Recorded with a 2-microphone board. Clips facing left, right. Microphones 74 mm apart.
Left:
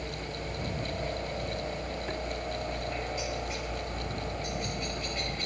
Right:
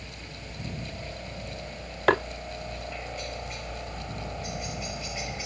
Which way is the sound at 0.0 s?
25° left (ahead or behind).